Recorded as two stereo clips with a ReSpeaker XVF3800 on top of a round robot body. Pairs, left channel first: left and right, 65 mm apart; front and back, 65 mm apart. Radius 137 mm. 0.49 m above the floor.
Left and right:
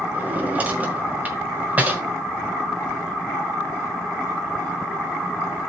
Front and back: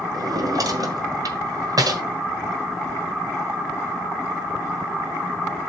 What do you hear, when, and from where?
0.1 s a drawer: 160° right, 1.9 m